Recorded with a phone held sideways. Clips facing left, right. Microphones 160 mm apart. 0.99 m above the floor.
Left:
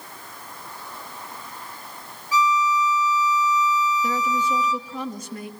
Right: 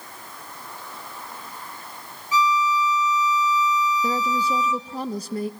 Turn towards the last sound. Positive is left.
turn(degrees=-35)  # may be behind; listen again after turning